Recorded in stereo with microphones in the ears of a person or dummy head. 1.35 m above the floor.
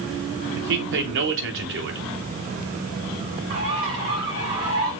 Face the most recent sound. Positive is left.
turn(degrees=-35)  # may be behind; listen again after turning